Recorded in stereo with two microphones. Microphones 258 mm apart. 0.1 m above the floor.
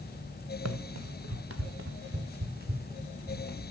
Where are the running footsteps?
80° right, 1.0 m; by 3.6 s 30° right (ahead or behind), 3 m.